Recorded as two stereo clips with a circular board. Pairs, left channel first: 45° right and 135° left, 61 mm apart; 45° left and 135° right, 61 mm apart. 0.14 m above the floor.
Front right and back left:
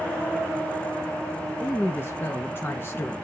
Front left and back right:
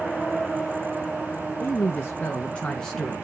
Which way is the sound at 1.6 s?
5° right.